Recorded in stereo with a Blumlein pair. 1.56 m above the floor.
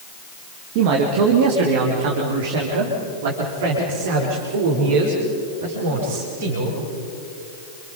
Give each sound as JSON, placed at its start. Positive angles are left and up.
{"t": 0.8, "sound": "a man speaking", "azimuth_deg": -45, "distance_m": 2.5}